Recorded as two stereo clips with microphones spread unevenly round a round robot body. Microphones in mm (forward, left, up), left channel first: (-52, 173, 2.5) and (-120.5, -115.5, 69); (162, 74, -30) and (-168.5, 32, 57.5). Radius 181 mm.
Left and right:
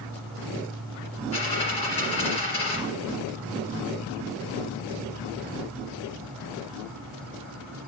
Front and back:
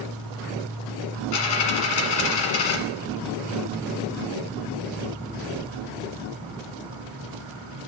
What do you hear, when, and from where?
0.0 s an insect: 170° right, 1.1 m
1.3 s a dropped coin: 5° right, 1.4 m